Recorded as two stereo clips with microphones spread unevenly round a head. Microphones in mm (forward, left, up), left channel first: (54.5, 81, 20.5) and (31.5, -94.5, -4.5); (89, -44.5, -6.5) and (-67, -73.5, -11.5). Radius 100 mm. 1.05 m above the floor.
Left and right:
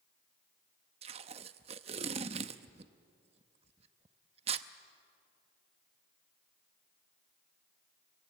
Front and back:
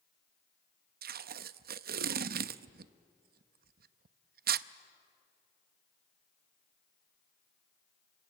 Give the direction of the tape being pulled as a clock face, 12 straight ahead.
5 o'clock.